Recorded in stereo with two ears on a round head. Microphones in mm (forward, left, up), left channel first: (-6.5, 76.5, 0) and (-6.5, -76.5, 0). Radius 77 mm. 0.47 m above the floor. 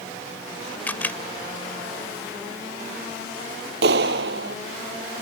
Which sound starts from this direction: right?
A clap, at 3.8 s.